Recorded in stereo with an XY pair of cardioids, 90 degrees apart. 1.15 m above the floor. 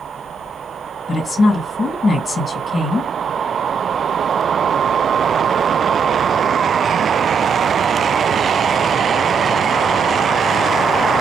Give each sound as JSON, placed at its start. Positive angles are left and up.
{"t": 1.1, "sound": "a woman speaking", "azimuth_deg": 45, "distance_m": 1.9}